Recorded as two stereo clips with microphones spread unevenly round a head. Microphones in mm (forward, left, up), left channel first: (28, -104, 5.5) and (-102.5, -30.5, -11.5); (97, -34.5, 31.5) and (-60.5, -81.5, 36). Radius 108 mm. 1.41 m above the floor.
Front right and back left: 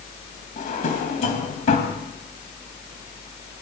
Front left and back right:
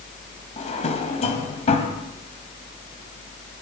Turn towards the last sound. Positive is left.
turn(degrees=-30)